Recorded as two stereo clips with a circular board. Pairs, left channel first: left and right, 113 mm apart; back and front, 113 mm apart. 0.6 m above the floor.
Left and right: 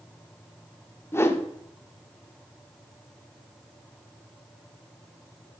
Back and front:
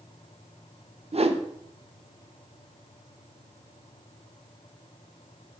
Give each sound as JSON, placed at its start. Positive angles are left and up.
{"t": 1.1, "sound": "a whoosh", "azimuth_deg": 25, "distance_m": 0.6}